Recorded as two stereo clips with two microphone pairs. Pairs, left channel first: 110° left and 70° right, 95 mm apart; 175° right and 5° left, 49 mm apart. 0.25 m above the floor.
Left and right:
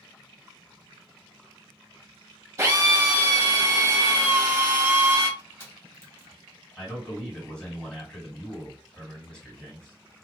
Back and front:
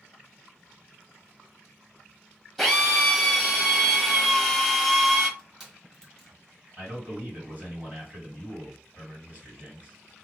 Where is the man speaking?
35° left, 2 m.